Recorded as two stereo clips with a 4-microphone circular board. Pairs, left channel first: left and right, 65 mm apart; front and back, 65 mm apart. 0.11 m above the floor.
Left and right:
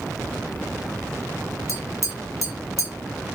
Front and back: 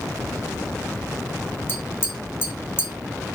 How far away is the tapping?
About 2 m.